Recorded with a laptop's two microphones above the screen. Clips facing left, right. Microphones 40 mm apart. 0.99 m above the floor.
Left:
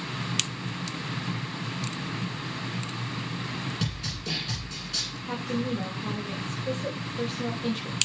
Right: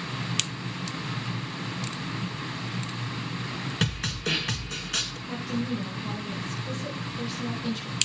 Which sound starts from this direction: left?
A woman speaking, at 5.3 s.